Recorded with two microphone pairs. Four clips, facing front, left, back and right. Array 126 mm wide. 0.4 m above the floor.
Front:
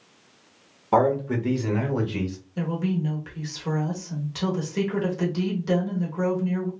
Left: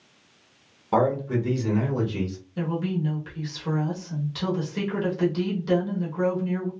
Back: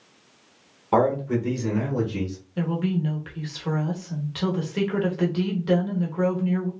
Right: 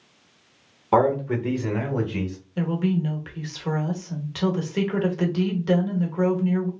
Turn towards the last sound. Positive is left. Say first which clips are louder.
# right 3 dB, back 1 dB
turn(degrees=-125)